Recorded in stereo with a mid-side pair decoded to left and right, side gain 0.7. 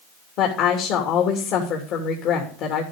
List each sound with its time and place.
0.4 s a woman speaking: 60° left, 3 m